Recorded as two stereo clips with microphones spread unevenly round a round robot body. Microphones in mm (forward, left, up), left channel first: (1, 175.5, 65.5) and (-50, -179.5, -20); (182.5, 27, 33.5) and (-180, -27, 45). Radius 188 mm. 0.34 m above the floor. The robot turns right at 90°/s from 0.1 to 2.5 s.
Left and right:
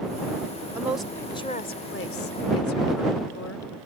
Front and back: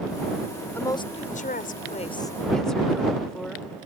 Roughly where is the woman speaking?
Ahead right.